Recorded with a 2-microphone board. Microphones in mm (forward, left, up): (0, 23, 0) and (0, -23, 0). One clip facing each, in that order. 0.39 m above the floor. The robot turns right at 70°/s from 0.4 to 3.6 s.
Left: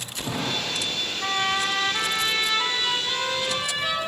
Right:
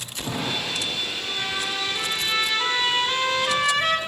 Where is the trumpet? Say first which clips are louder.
Left 8 dB; 85° left, 3 m; by 4.0 s 110° right, 3 m.